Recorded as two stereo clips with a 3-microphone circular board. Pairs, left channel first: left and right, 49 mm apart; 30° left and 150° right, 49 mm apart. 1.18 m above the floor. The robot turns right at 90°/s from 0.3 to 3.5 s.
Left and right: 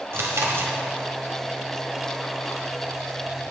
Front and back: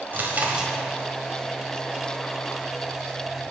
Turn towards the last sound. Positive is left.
turn(degrees=-175)